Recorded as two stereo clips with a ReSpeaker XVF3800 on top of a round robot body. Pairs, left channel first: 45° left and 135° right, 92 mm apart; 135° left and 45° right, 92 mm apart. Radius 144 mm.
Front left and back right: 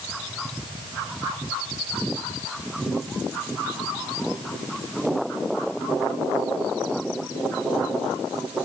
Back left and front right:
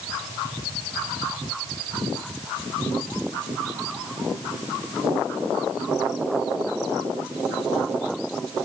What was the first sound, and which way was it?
Only background noise.